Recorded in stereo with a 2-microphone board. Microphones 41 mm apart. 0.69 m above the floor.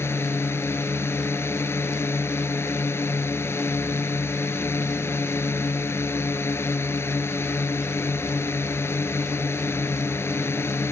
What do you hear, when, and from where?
0.0 s a drone: 80° left